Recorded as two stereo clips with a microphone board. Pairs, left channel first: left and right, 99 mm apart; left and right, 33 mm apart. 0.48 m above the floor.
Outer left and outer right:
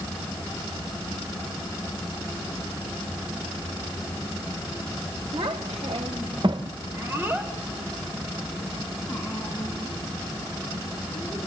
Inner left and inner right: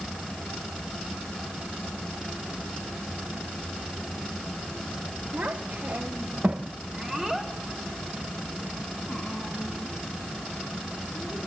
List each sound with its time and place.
5.3 s a child speaking: 65° right (ahead or behind), 2.5 m; by 11.4 s 20° left (ahead or behind), 7 m